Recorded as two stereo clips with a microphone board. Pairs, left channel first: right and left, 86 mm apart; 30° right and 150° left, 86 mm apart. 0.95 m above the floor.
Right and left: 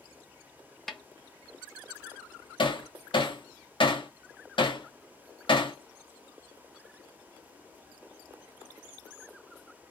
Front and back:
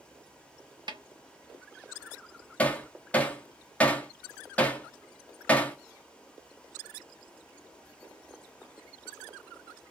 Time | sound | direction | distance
0.9 | a snare drum | straight behind | 0.9 m
2.6 | hammering | 105° right | 1.4 m